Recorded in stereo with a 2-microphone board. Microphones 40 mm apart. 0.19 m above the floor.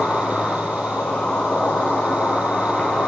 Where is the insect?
35° left (ahead or behind), 7 m.